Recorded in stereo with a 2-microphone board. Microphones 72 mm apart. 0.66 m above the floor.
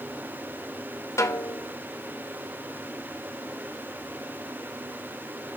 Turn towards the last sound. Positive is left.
turn(degrees=45)  # may be behind; listen again after turning